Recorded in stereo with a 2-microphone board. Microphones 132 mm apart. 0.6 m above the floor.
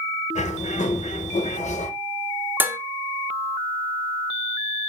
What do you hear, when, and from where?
0.3 s a bird: 65° left (ahead or behind), 0.6 m
2.6 s dishes clattering: 15° right (ahead or behind), 0.6 m